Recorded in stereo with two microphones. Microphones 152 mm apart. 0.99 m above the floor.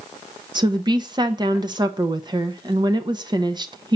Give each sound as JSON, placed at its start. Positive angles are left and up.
{"t": 0.6, "sound": "a woman speaking", "side_deg": -30, "distance_m": 0.8}